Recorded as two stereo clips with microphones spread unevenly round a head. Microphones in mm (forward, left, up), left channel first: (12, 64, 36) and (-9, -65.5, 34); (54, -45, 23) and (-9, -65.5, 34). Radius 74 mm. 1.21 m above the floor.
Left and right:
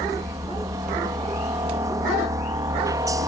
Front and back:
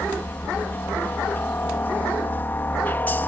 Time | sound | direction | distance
0.0 | a helicopter | 40° right | ?